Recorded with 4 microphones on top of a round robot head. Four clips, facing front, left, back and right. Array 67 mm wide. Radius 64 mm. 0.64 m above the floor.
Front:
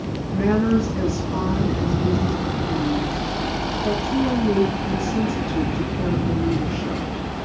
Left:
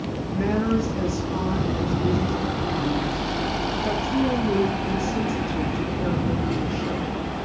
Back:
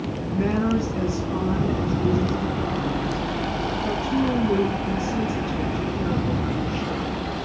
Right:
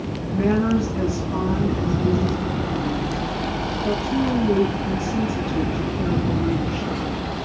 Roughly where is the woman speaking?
Ahead right.